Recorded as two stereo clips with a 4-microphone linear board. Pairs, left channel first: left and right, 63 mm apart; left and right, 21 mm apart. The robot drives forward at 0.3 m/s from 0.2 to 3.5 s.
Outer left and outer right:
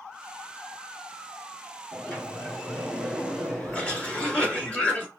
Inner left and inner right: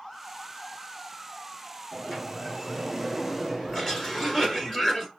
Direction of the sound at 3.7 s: 20° left (ahead or behind).